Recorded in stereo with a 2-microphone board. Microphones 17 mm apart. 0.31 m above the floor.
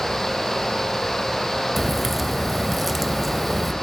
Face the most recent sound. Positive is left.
turn(degrees=0)  # may be behind; listen again after turning